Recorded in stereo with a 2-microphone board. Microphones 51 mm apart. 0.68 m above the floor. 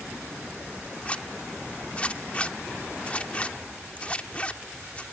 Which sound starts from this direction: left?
A zipper, at 1.1 s.